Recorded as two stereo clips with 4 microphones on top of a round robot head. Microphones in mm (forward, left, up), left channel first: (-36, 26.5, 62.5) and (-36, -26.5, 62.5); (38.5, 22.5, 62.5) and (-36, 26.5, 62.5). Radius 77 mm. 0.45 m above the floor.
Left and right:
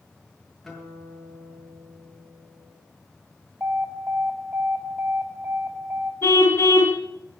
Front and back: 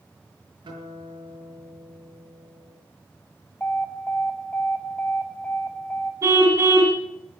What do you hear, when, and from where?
0.6 s a guitar: 175° left, 7 m
3.6 s an alarm: 65° right, 1.9 m
6.2 s a car horn: 125° left, 3 m